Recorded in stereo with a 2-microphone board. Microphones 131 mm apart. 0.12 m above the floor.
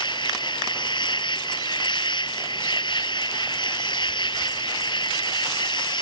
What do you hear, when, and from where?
0.0 s an insect: 35° left (ahead or behind)